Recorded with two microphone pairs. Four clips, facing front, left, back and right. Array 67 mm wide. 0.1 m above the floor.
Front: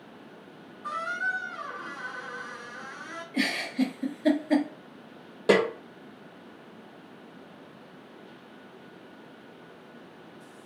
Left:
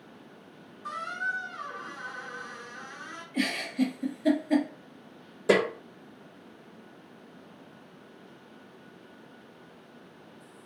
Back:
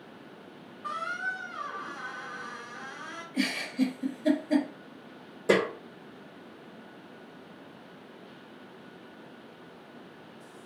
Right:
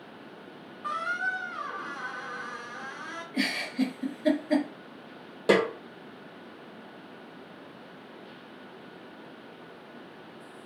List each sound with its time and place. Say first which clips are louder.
0.8 s a squeak: right 3 dB, front 3 dB; 90° right, 1.3 m
3.3 s a giggle: left 1 dB, front 1 dB; 35° right, 1.6 m
5.5 s a snare drum: right 1 dB, front 3 dB; 50° right, 1.8 m